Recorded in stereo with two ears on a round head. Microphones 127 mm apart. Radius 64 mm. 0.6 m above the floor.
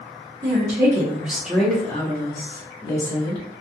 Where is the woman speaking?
40° right (ahead or behind), 1.1 m; by 3.4 s 50° left (ahead or behind), 1.5 m.